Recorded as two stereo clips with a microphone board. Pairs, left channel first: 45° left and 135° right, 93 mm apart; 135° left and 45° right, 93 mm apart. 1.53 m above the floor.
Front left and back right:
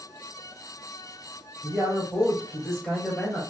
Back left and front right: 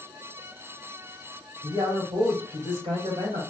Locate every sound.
1.6 s a man speaking: 40° right, 3 m